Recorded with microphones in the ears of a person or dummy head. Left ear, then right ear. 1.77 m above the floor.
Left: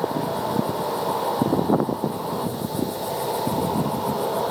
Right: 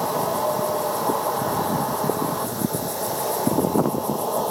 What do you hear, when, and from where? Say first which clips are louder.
0.0 s an insect: right 3 dB; 60° right (ahead or behind), 3 m